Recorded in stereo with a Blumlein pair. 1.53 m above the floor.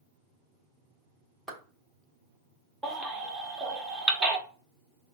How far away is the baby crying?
About 1.2 m.